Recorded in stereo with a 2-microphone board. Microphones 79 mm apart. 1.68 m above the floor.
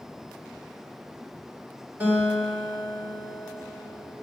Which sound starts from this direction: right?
A guitar, at 2.0 s.